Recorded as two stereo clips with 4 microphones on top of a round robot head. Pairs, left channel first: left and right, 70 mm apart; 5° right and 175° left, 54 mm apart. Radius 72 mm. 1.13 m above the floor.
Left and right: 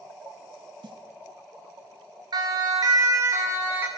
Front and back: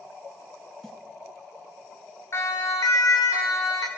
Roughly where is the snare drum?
Right.